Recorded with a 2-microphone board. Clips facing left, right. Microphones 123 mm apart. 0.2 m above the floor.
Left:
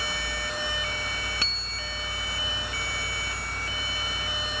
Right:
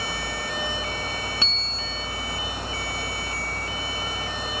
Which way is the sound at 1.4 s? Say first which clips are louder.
Right 4 dB; 20° right (ahead or behind).